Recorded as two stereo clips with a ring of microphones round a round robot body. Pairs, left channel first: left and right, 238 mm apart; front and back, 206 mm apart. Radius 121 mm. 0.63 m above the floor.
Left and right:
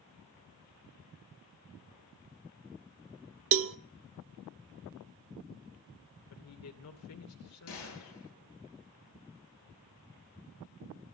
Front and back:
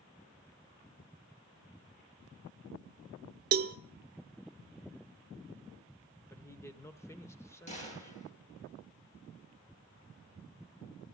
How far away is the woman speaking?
About 2.0 m.